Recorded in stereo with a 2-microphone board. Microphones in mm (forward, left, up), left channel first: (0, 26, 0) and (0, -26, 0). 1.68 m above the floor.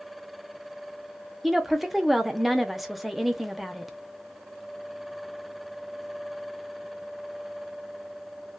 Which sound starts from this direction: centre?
A woman speaking, at 1.4 s.